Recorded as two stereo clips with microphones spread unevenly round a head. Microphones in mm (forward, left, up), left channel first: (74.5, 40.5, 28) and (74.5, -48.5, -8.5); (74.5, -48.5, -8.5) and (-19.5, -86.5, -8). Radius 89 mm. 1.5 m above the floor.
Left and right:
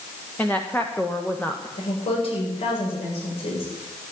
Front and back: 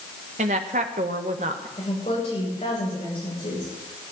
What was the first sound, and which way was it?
A woman speaking, 170° left.